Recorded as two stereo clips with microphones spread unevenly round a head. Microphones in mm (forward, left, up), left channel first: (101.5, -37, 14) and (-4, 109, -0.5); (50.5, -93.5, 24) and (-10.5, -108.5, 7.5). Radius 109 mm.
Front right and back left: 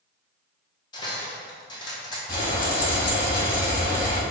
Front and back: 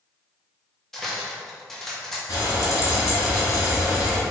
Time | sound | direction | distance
0.9 | cutlery clinking | 35° right | 0.6 m
2.3 | frying | 15° right | 1.6 m